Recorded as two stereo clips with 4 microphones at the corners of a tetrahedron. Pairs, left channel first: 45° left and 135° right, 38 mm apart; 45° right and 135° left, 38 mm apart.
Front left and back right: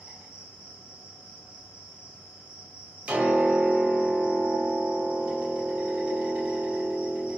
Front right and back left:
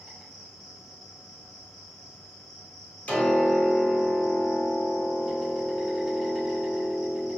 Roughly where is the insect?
Behind right.